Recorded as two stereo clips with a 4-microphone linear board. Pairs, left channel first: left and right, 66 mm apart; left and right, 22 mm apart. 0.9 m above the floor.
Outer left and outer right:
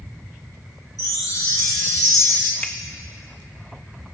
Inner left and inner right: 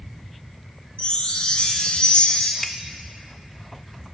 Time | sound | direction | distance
1.0 | a chime | 70° left (ahead or behind) | 1.7 m
2.6 | a finger snap | 20° left (ahead or behind) | 0.6 m